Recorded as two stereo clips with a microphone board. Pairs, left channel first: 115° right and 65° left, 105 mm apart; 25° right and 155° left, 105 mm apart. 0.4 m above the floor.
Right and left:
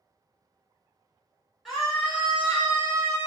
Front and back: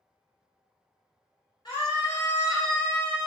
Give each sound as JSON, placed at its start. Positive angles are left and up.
{"t": 1.6, "sound": "a scream", "azimuth_deg": -20, "distance_m": 2.0}